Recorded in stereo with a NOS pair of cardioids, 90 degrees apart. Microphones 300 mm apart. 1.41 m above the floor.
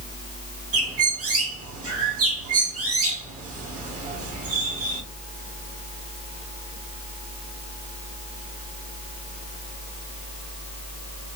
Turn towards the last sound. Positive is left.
turn(degrees=-55)